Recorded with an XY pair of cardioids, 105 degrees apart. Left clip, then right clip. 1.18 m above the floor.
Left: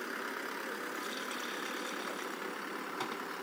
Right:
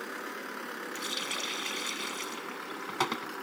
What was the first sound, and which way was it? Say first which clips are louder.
A running tap: right 5 dB; 60° right.